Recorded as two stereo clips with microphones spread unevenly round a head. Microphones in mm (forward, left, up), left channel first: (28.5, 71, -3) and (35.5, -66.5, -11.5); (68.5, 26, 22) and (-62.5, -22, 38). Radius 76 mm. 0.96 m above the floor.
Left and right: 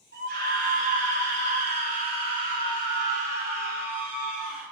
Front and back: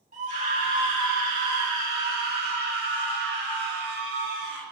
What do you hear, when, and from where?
0.1 s a scream: 125° right, 7.5 m; by 4.6 s 175° right, 6.5 m